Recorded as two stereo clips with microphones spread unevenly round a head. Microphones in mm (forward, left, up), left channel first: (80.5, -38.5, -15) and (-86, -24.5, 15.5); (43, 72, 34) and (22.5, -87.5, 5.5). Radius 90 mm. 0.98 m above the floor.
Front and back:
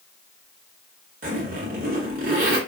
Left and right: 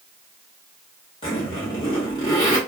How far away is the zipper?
About 1.0 m.